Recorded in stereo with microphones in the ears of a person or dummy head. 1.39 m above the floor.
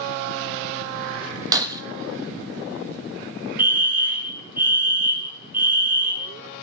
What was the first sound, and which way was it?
Breaking glass, 20° right (ahead or behind).